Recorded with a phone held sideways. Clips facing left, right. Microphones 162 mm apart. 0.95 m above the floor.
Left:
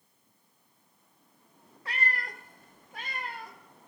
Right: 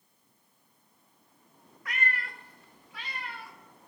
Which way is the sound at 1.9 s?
30° left (ahead or behind).